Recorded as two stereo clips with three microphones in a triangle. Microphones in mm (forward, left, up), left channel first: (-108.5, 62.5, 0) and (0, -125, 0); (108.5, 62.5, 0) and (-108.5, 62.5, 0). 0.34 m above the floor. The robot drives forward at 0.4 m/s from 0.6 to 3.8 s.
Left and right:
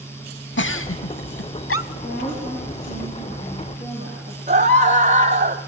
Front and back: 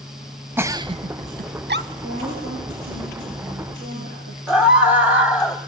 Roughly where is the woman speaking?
Behind.